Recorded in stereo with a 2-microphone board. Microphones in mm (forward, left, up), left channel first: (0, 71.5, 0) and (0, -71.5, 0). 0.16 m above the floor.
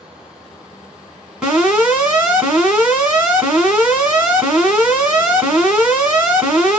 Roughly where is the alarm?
Centre.